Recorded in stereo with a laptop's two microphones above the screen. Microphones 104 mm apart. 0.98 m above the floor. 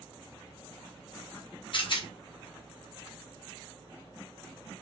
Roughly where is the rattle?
Left.